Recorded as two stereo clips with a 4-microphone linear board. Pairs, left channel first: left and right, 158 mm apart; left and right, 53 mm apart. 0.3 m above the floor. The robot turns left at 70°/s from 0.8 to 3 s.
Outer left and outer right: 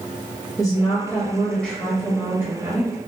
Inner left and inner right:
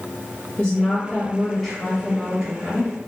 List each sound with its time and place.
0.6 s a woman speaking: 20° left (ahead or behind), 1.0 m; by 2.9 s 20° right (ahead or behind), 1.0 m